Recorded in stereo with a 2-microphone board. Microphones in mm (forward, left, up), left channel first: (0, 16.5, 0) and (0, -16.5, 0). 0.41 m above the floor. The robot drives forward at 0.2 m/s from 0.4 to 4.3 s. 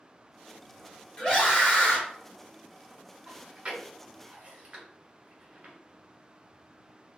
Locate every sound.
1.2 s a scream: 25° left (ahead or behind), 1.1 m
3.3 s chewing: 30° right (ahead or behind), 1.6 m